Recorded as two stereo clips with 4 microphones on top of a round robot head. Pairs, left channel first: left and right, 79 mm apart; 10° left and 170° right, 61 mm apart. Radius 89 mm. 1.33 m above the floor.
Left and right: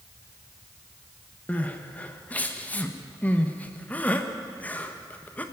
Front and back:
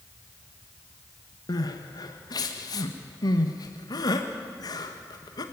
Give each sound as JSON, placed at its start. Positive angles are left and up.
{"t": 1.5, "sound": "crying", "azimuth_deg": 20, "distance_m": 1.4}